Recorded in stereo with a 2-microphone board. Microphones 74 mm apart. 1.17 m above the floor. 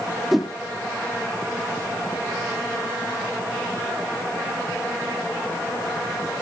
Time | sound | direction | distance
0.3 | a whoosh | centre (ahead or behind) | 0.5 m